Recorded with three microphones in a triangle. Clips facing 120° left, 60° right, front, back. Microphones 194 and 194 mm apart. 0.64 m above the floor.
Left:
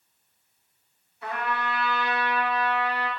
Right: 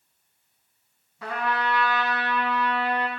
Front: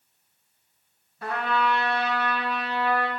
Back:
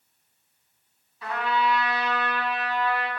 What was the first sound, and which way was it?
A trumpet, 45° right.